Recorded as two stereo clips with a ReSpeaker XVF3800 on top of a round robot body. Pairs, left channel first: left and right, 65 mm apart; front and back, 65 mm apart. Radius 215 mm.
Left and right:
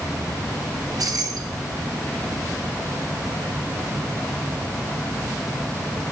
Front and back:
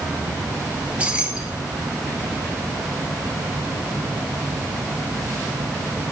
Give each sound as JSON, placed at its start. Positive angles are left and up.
{"t": 0.8, "sound": "keys jangling", "azimuth_deg": -110, "distance_m": 1.7}